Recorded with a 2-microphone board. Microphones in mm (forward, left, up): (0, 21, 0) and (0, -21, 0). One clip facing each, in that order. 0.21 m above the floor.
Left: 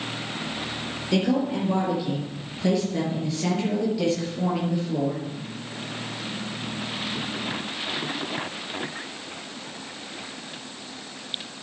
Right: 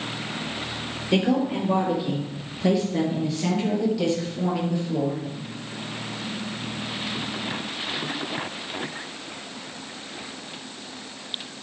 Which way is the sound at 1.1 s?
20° right (ahead or behind).